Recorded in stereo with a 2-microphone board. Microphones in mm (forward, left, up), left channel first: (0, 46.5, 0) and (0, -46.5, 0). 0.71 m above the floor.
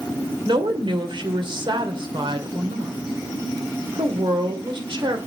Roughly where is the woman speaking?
Right.